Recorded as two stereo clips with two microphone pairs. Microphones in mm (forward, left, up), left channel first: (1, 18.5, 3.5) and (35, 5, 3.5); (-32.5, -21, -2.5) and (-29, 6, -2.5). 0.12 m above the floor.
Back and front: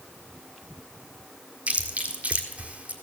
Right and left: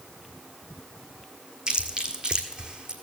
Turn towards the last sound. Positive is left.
turn(degrees=30)